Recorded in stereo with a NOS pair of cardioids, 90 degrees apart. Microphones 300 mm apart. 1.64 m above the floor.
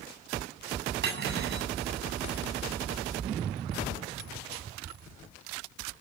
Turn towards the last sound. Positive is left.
turn(degrees=-40)